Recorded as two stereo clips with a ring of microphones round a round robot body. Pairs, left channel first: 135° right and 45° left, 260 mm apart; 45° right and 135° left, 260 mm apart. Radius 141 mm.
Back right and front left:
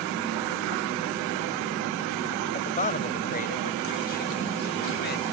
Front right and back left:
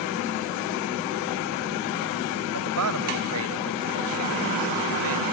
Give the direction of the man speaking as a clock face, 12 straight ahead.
7 o'clock.